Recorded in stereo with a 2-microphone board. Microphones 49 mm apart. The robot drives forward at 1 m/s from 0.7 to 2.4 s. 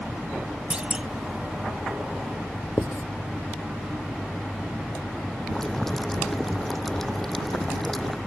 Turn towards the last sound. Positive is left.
turn(degrees=5)  # may be behind; listen again after turning